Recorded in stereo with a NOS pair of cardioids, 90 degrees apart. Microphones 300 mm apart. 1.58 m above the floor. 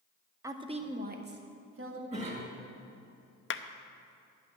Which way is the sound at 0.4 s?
10° right.